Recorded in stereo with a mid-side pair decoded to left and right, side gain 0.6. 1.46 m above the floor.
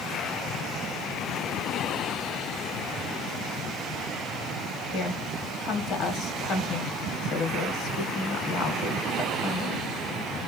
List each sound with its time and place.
4.9 s a woman speaking: 60° left, 1.6 m